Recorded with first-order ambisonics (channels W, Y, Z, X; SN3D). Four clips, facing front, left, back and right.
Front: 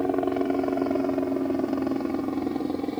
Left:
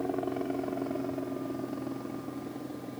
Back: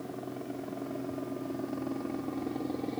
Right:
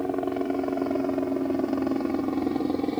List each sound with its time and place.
0.0 s a helicopter: 20° right; by 3.0 s 70° right